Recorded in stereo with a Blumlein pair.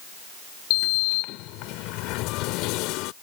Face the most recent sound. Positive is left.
turn(degrees=40)